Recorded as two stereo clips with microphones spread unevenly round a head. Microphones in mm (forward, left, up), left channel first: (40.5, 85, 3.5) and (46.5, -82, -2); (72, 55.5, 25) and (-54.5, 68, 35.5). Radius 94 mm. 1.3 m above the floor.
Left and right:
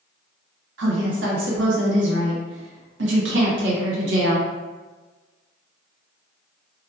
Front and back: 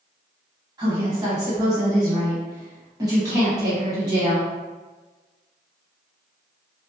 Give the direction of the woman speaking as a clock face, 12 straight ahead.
4 o'clock.